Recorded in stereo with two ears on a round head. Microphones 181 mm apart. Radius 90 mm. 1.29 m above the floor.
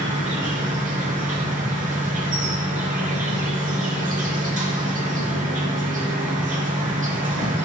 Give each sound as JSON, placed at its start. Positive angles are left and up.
{"t": 0.0, "sound": "an insect", "side_deg": -35, "distance_m": 3.0}